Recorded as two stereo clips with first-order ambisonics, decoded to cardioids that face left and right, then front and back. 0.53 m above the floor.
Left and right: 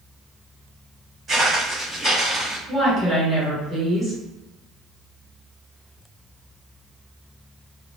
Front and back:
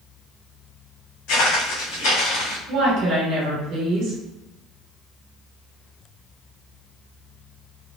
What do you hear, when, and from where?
1.3 s footsteps: 15° right, 1.9 m; by 2.6 s 5° left, 2.5 m
2.7 s a woman speaking: 165° right, 1.6 m